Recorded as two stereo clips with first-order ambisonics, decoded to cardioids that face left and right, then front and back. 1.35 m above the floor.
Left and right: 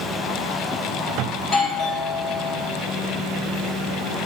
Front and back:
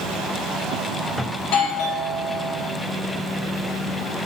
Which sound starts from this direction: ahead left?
A doorbell, at 1.4 s.